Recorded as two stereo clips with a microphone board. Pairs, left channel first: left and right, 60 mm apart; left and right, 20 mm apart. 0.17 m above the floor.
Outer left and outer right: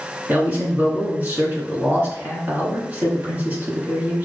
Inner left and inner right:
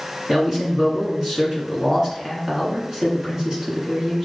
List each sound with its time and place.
0.3 s a man speaking: 30° right (ahead or behind), 2.5 m